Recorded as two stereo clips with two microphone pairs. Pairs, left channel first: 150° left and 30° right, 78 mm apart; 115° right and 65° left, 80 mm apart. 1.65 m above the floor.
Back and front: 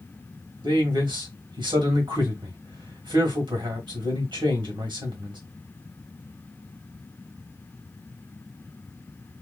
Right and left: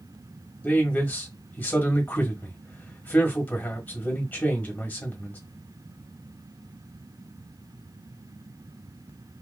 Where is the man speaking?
45° right, 1.5 m.